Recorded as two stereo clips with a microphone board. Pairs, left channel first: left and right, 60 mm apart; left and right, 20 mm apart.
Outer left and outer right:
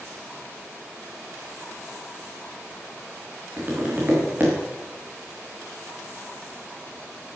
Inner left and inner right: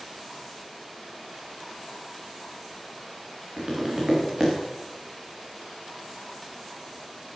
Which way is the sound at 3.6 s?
35° right (ahead or behind).